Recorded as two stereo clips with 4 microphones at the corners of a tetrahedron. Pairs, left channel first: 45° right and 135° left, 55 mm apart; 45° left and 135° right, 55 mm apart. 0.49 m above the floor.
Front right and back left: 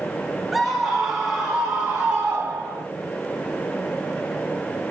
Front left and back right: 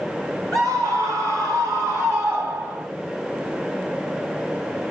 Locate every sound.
0.5 s a scream: 135° right, 4 m; by 2.9 s 170° right, 3.5 m